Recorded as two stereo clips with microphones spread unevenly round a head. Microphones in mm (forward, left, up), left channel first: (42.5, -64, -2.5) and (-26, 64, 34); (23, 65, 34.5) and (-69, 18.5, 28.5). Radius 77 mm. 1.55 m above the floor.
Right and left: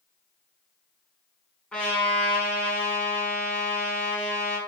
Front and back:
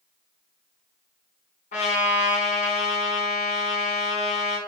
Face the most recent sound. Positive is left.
turn(degrees=25)